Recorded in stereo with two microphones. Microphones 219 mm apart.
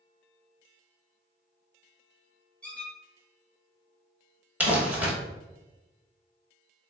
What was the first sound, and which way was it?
A squeak, 5° left (ahead or behind).